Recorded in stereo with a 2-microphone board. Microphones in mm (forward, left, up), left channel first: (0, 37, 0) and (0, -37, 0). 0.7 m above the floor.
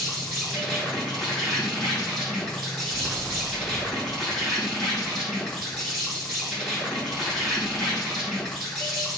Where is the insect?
Centre (ahead or behind), 2.5 m.